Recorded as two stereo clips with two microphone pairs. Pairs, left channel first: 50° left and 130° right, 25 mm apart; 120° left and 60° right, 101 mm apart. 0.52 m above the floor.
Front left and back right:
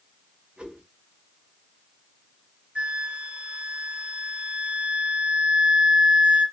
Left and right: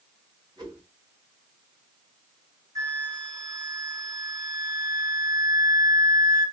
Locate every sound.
0.6 s a whoosh: 105° right, 3 m
2.8 s a flute: 115° right, 2.5 m